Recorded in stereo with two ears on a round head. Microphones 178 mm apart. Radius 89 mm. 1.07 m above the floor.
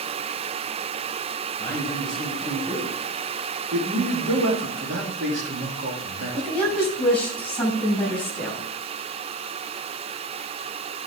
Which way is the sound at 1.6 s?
5° left (ahead or behind).